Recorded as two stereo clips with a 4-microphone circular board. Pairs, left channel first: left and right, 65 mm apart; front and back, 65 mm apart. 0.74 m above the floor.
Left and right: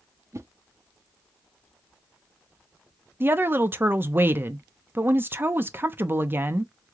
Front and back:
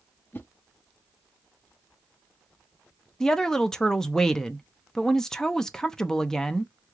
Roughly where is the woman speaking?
Right.